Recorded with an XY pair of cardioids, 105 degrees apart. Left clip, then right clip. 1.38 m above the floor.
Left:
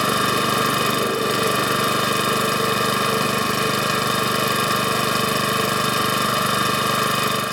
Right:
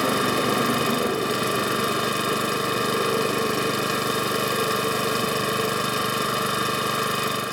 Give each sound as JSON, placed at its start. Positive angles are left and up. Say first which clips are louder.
{"t": 0.0, "sound": "an engine running", "louder": "left 3 dB", "azimuth_deg": 30}